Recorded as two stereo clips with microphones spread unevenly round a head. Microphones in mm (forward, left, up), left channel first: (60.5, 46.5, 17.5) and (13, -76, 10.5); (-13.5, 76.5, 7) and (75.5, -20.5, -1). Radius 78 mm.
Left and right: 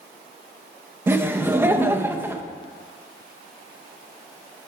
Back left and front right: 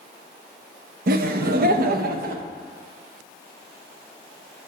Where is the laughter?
35° right, 0.7 m.